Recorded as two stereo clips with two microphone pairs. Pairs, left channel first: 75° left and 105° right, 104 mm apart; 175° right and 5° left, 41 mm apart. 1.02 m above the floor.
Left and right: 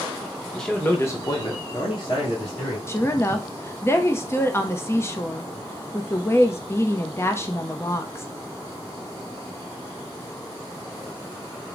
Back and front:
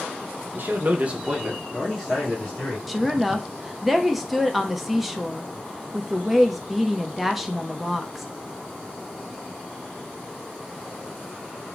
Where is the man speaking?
5° right, 1.2 m; by 2.8 s 115° left, 2 m.